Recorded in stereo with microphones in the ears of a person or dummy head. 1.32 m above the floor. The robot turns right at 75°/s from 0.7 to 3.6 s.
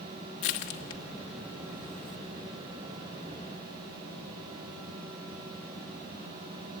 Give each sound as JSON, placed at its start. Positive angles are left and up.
{"t": 0.4, "sound": "crushing", "side_deg": 30, "distance_m": 0.9}